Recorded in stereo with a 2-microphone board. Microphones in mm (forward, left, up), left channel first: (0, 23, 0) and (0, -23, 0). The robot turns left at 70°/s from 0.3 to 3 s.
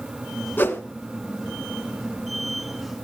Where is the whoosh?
45° left (ahead or behind), 1.6 m; by 0.8 s 50° left (ahead or behind), 1.6 m.